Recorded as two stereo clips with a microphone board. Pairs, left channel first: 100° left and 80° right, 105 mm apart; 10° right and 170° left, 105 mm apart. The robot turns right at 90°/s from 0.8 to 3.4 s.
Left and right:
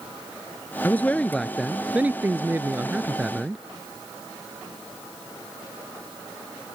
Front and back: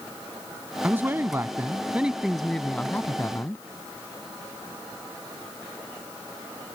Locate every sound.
0.8 s a man speaking: 125° left; by 3.6 s 5° right